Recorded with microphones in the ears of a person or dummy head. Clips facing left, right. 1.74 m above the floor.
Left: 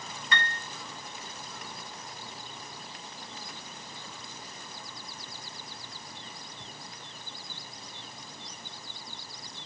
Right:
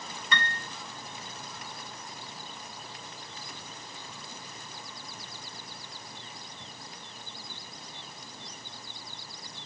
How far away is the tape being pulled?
I don't hear tape being pulled.